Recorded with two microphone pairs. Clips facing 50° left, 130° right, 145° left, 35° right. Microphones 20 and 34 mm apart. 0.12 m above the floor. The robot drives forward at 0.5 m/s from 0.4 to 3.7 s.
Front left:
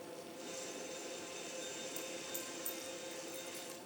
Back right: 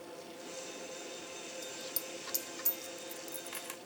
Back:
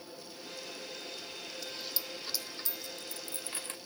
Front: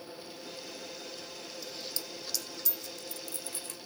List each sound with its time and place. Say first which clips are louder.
1.6 s a dropped coin: back right 2 dB, even; 115° right, 0.5 m; by 3.8 s 160° right, 1.3 m